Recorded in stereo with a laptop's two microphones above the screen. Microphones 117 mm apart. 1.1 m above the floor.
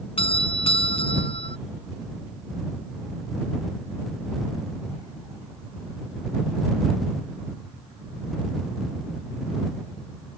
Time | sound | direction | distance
0.2 | a doorbell | 50° left (ahead or behind) | ?